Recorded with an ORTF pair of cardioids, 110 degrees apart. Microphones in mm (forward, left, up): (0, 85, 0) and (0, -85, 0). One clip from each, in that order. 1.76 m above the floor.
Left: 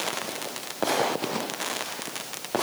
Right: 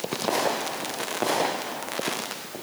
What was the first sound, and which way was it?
Only background noise.